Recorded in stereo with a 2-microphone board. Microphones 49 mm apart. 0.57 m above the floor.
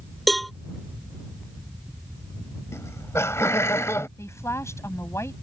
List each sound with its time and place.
0.3 s a cowbell: centre (ahead or behind)
2.7 s laughter: 70° left (ahead or behind)
4.2 s a woman speaking: 75° left (ahead or behind)